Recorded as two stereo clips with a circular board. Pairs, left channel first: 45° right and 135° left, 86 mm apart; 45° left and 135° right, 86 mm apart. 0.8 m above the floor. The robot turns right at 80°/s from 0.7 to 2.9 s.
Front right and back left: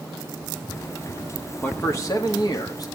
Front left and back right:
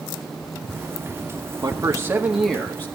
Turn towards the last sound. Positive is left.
turn(degrees=-10)